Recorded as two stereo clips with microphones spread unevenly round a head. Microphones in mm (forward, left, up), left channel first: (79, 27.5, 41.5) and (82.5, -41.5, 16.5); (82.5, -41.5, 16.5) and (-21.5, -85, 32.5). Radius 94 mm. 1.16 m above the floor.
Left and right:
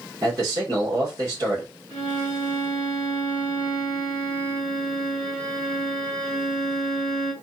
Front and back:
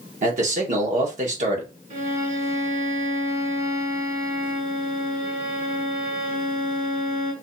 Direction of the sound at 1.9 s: 150° right.